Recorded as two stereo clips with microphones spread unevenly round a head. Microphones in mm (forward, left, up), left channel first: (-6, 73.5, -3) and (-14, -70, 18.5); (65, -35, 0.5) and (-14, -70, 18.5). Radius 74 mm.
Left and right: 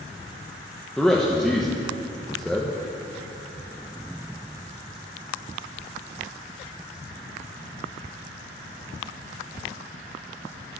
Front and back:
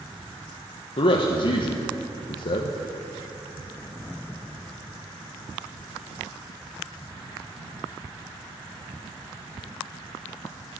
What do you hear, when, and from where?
1.0 s a man speaking: 5° right, 1.0 m